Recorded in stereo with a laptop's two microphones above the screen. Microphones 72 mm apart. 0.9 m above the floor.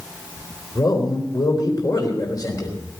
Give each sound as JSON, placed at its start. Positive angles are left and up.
{"t": 0.8, "sound": "a man speaking", "side_deg": 60, "distance_m": 3.5}